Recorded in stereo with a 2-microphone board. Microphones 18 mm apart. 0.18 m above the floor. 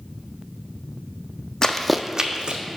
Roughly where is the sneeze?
I don't hear a sneeze.